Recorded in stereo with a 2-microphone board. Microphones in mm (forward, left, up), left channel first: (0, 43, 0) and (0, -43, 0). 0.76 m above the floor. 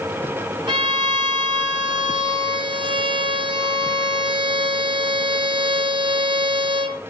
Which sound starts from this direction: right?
A violin, at 0.7 s.